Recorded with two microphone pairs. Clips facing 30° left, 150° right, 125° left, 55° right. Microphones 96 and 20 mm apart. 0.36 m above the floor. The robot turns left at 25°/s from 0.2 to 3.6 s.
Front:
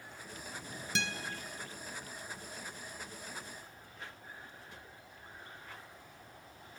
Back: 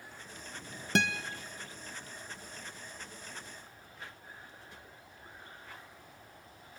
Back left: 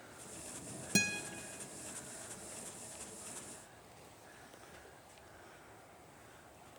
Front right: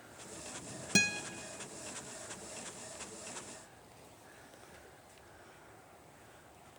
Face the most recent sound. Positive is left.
turn(degrees=170)